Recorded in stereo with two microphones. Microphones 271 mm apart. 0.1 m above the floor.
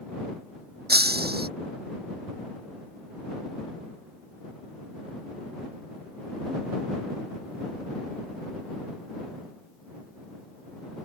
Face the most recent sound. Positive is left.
turn(degrees=-40)  # may be behind; listen again after turning